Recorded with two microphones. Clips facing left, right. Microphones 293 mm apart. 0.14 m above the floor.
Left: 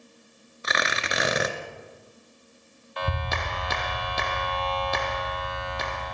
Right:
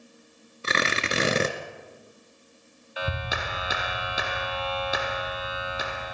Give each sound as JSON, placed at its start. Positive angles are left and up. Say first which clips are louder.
{"t": 0.6, "sound": "tearing paper", "louder": "right 3 dB", "side_deg": -35, "distance_m": 1.6}
{"t": 3.0, "sound": "a clap", "louder": "left 1 dB", "side_deg": -5, "distance_m": 1.3}